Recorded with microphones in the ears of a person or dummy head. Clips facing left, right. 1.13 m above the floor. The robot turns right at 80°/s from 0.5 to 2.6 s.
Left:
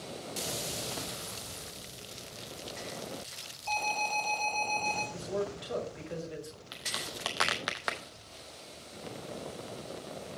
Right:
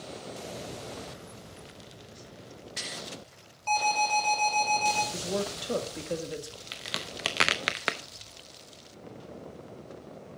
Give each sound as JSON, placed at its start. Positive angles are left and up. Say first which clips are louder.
{"t": 3.7, "sound": "an alarm", "louder": "right 7 dB", "side_deg": -50, "distance_m": 5.0}
{"t": 5.1, "sound": "a man speaking", "louder": "right 2 dB", "side_deg": -50, "distance_m": 1.7}
{"t": 6.7, "sound": "a crack", "louder": "right 3 dB", "side_deg": -35, "distance_m": 0.7}